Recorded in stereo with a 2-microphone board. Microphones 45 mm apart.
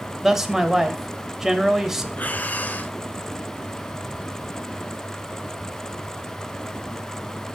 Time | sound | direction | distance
0.2 | a man speaking | 10° right (ahead or behind) | 1.0 m
2.2 | breathing | 40° left (ahead or behind) | 0.7 m